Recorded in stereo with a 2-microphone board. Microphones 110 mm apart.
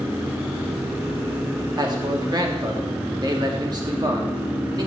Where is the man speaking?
40° right (ahead or behind), 1.5 m.